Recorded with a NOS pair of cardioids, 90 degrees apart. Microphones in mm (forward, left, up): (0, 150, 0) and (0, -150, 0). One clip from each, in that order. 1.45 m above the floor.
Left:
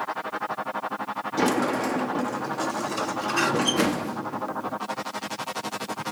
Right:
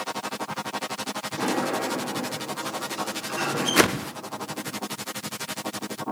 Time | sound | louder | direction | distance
1.4 | a sliding door | left 3 dB | 40° left | 0.8 m
3.8 | a whoosh | right 4 dB | 60° right | 0.7 m